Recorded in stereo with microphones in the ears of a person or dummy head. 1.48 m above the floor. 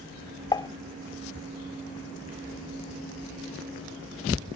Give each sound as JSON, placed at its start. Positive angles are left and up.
{"t": 0.5, "sound": "dishes clattering", "side_deg": 25}